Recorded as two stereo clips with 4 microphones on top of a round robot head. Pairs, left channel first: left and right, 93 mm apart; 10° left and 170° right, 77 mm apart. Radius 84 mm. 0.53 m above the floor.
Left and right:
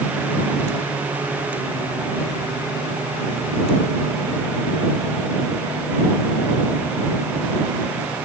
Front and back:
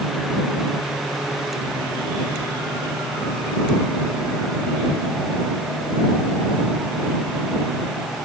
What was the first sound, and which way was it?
Only background noise.